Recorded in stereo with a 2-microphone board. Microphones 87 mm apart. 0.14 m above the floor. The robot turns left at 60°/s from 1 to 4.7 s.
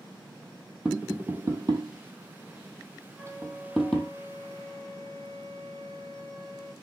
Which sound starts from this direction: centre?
Tapping, at 0.8 s.